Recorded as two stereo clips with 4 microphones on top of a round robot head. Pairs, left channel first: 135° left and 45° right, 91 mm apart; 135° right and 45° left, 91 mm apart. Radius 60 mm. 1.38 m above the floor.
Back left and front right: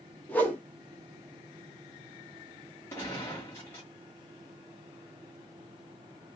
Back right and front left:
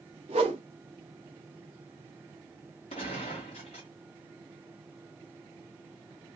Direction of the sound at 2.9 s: 160° right.